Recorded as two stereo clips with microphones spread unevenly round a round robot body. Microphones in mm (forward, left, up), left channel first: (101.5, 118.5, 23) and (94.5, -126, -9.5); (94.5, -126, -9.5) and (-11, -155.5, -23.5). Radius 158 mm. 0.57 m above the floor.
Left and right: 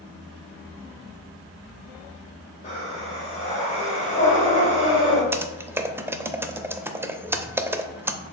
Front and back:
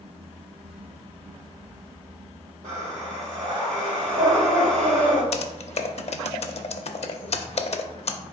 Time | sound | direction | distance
2.6 | breathing | 155° left | 1.5 m
5.3 | typing on a keyboard | 5° right | 0.5 m